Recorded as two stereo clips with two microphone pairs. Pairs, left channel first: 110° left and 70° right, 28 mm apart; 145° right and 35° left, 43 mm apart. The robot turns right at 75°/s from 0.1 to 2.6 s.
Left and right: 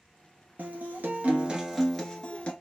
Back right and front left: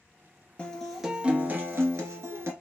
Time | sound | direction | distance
0.6 | a guitar | 80° right | 0.9 m